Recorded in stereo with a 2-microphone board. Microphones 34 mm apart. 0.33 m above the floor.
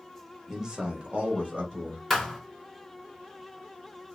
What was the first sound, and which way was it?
A man speaking, 10° right (ahead or behind).